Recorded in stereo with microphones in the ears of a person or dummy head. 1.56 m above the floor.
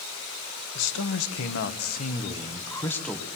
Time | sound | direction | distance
0.8 | a man speaking | 70° left (ahead or behind) | 1.6 m